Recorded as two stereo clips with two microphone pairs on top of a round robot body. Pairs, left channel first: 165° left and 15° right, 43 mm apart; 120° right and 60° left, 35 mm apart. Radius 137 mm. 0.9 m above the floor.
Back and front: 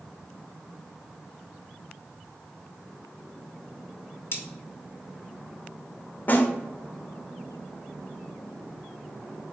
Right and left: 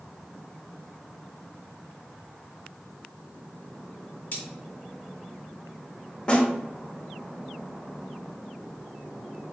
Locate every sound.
4.3 s cutlery clinking: 160° right, 0.6 m
6.3 s a snare drum: 175° left, 0.9 m